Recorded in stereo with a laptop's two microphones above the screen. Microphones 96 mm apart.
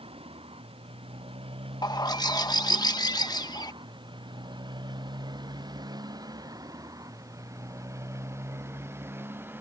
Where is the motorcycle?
80° right; by 9.6 s 20° right (ahead or behind).